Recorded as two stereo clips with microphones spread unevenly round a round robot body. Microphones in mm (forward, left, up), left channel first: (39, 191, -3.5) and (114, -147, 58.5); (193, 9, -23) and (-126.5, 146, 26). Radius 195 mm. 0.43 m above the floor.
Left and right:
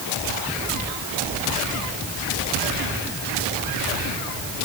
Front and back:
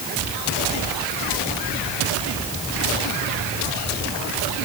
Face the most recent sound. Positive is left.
No sound to turn to.